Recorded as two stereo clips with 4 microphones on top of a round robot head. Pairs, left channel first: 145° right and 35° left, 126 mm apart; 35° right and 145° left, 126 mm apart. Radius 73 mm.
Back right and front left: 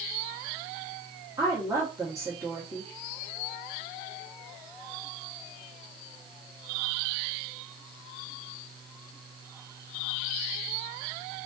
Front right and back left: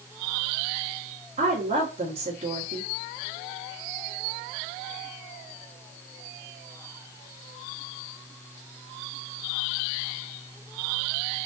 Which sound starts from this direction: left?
A woman speaking, at 1.4 s.